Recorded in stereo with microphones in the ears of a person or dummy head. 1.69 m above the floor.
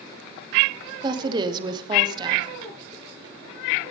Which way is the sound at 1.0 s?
25° right (ahead or behind).